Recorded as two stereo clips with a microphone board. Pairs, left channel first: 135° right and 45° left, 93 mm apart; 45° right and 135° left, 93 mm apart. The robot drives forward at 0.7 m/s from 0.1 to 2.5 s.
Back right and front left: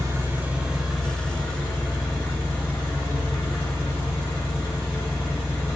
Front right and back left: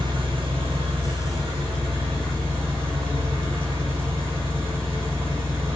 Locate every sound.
0.0 s an engine running: 105° left, 0.8 m; by 5.8 s 160° left, 2 m